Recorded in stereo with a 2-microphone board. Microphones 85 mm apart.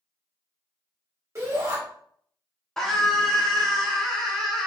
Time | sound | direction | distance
1.4 | a shout | 35° right (ahead or behind) | 1.8 m
2.8 | a scream | 5° left (ahead or behind) | 0.7 m